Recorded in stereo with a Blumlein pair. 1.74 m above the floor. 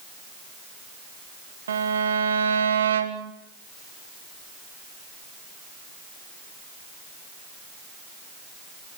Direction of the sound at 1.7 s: 65° right.